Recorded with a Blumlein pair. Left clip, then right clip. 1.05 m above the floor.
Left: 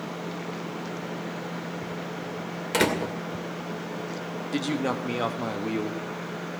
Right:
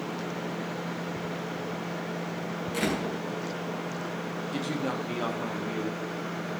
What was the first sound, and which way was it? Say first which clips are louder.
A door slam: left 6 dB; 55° left.